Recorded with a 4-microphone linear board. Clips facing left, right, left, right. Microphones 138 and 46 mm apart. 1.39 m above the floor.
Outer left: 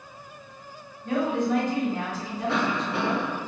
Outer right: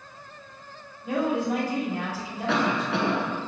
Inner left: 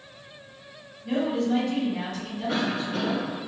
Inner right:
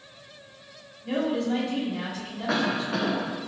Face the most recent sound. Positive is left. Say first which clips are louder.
# outer right 2 dB, inner right 2 dB
turn(degrees=-85)